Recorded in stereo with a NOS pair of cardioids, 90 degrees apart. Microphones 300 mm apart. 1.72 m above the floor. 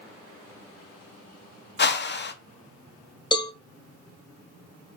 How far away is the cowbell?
About 1.5 m.